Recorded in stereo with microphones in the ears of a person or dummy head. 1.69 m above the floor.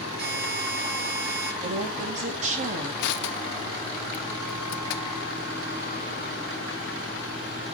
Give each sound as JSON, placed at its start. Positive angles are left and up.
{"t": 0.2, "sound": "a buzzer", "side_deg": -70, "distance_m": 8.0}
{"t": 1.6, "sound": "a woman speaking", "side_deg": -35, "distance_m": 3.0}
{"t": 3.0, "sound": "crushing", "side_deg": 60, "distance_m": 0.6}